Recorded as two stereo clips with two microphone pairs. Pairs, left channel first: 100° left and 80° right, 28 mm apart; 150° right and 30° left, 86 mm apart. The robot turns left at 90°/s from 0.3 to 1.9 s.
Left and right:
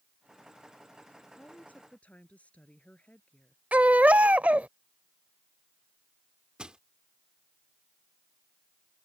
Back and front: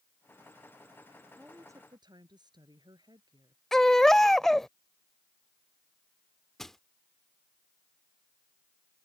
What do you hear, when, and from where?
1.4 s a woman speaking: 115° left; by 3.6 s 65° left
3.7 s a baby crying: 65° right
6.6 s crushing: 65° right